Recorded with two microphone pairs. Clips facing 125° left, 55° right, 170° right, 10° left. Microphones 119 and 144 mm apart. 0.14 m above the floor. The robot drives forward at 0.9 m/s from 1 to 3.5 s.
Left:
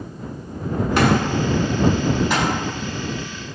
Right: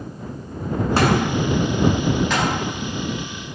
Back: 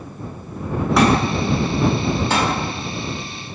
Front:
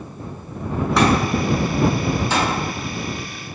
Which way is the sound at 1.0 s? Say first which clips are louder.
Left 1 dB, back 1 dB; 80° right.